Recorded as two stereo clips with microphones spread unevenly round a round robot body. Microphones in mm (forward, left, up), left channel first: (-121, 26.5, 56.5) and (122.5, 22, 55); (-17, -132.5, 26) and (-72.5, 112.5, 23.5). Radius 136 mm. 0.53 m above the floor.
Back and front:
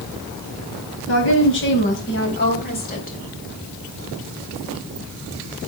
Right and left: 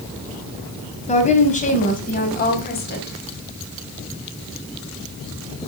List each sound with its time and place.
1.1 s a woman speaking: 140° right, 4 m; by 3.2 s 125° right, 3.5 m